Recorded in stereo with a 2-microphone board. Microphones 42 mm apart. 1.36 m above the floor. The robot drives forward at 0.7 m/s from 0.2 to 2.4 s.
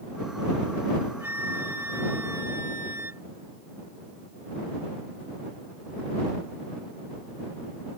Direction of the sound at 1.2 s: 70° right (ahead or behind).